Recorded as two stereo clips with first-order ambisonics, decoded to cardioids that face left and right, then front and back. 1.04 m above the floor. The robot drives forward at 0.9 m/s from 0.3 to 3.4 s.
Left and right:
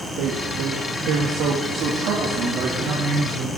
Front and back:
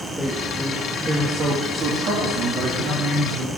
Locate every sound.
0.2 s a man speaking: 85° right, 1.7 m; by 3.5 s 150° right, 3 m